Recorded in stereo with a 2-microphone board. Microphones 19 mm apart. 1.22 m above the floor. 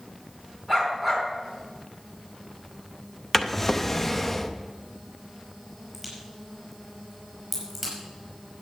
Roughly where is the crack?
Centre.